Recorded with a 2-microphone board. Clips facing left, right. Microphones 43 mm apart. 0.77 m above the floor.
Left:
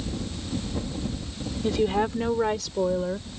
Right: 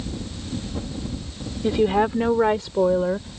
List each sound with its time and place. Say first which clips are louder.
1.6 s a woman speaking: right 5 dB; 20° right (ahead or behind); by 3.4 s 30° right (ahead or behind)